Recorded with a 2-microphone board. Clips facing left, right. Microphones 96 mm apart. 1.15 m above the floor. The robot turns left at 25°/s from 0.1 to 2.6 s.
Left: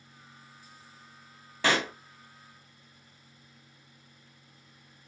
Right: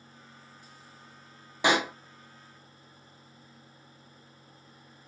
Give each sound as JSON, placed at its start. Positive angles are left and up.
{"t": 1.6, "sound": "a pop", "side_deg": -15, "distance_m": 0.6}